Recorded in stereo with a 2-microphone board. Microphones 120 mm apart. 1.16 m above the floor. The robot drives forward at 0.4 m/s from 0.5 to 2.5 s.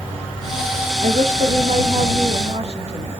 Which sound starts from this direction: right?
A woman speaking, at 1.0 s.